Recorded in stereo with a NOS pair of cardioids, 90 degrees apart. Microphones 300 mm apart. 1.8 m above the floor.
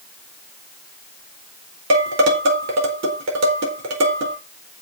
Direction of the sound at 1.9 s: 55° right.